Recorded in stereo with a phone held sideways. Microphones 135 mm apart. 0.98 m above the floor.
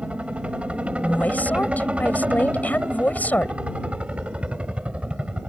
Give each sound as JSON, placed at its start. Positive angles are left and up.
{"t": 0.0, "sound": "a helicopter", "side_deg": -10}
{"t": 1.0, "sound": "a woman speaking", "side_deg": 10}